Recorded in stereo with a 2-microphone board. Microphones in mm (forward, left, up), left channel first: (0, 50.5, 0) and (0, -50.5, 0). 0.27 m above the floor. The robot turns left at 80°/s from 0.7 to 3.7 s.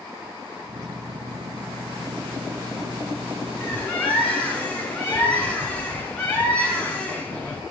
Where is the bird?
15° left (ahead or behind), 3 m; by 7.6 s 10° left (ahead or behind), 3 m.